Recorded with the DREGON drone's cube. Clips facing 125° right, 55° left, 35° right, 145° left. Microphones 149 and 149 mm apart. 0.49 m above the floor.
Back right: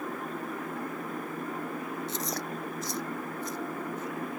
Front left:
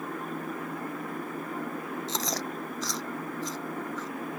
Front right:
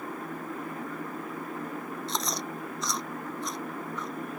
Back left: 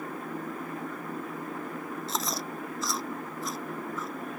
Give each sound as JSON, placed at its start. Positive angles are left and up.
{"t": 2.1, "sound": "chewing", "azimuth_deg": 60}